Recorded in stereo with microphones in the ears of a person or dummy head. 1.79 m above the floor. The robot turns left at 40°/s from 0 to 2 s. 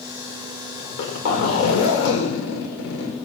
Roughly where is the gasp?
I don't hear a gasp.